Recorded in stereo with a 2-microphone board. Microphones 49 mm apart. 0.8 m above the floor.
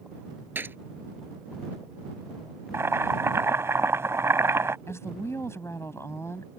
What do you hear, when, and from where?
0.6 s a gunshot: 45° right (ahead or behind)
2.7 s boiling: 60° right (ahead or behind)
4.9 s a woman speaking: 65° left (ahead or behind)